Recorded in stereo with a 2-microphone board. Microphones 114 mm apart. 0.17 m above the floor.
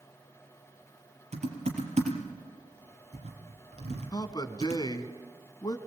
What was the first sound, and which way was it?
Typing on a keyboard, 70° right (ahead or behind).